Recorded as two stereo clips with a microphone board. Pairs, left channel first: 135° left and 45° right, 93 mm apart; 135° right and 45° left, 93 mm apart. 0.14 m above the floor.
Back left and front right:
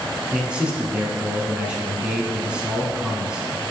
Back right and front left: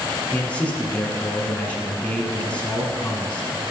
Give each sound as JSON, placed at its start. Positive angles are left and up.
{"t": 0.3, "sound": "a man speaking", "azimuth_deg": -95, "distance_m": 1.3}